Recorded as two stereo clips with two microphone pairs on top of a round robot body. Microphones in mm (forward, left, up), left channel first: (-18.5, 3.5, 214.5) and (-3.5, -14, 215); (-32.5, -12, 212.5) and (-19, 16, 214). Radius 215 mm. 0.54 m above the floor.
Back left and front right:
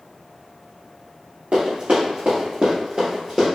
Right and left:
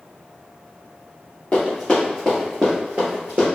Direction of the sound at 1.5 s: 55° right.